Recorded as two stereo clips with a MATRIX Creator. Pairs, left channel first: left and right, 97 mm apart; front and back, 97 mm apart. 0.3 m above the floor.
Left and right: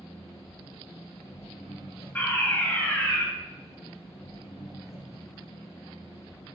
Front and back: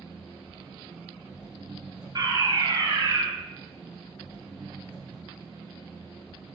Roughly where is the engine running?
Left.